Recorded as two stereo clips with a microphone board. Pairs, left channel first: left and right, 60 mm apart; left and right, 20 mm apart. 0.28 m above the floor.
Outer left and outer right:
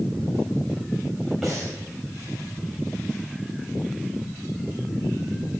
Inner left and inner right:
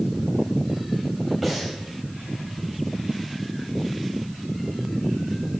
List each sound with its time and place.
1.4 s breathing: centre (ahead or behind), 4 m